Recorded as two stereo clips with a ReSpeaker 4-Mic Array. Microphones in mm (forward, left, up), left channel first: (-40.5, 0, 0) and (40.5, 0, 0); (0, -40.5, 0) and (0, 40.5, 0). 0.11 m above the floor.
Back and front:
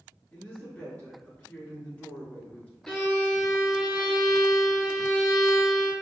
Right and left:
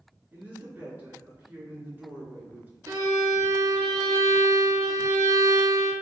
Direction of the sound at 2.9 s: 105° left.